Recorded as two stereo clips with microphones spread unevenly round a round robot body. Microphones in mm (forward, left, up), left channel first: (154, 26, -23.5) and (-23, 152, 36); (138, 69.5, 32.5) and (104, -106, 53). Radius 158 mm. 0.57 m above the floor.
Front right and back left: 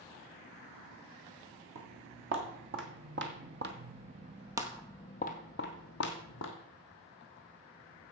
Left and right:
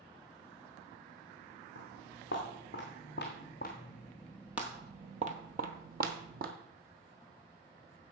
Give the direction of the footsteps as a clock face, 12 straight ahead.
8 o'clock.